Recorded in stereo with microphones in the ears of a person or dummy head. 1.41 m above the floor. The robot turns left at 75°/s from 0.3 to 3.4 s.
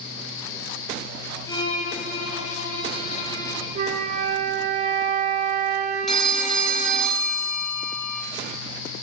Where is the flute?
35° right (ahead or behind), 0.8 m.